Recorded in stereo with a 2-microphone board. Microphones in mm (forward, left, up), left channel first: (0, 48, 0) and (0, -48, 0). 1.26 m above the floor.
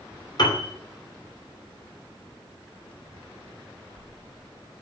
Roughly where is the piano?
Left.